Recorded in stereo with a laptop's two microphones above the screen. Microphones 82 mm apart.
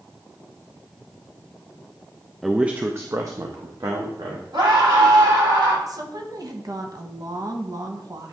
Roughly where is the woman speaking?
Right.